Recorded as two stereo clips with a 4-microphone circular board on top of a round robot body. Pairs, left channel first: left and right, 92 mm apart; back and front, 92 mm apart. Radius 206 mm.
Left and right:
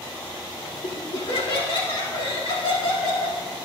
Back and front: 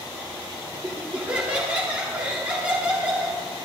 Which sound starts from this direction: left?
Laughter, at 0.8 s.